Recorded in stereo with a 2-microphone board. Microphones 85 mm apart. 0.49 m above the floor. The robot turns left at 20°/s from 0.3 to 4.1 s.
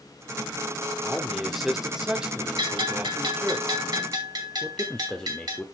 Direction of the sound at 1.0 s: 10° left.